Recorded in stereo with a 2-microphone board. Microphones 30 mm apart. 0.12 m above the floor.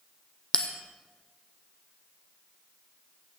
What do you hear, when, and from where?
0.5 s a bell: 30° left (ahead or behind), 1.1 m